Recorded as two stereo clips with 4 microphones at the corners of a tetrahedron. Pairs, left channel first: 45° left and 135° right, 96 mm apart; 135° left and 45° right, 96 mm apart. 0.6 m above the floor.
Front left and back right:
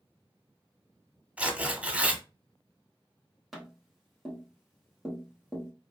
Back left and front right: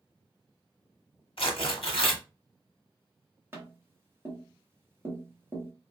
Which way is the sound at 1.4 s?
150° left.